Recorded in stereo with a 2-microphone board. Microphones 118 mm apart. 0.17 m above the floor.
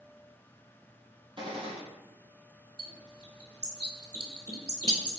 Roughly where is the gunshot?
Right.